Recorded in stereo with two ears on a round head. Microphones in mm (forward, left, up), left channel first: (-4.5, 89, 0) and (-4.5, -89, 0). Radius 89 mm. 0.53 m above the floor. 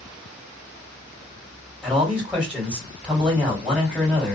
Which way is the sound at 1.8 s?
5° right (ahead or behind).